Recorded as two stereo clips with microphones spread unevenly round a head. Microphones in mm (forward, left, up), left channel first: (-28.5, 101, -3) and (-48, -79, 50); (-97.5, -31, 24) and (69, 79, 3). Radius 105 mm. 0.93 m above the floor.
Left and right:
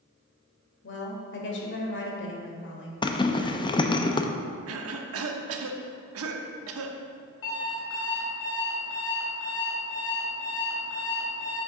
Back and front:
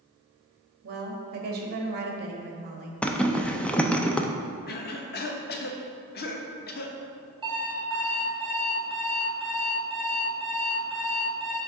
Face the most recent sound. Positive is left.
turn(degrees=100)